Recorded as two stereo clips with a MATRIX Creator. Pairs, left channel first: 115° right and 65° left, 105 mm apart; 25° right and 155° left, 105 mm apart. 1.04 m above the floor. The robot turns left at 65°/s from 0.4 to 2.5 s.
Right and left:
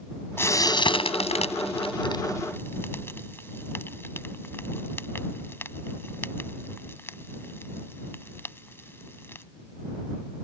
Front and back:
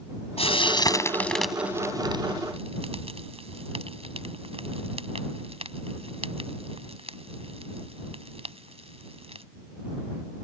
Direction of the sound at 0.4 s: 45° right.